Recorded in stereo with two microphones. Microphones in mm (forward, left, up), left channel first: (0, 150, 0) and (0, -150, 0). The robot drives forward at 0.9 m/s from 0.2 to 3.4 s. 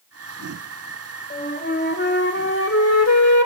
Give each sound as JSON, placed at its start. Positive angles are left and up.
{"t": 1.3, "sound": "a flute", "side_deg": 25, "distance_m": 2.5}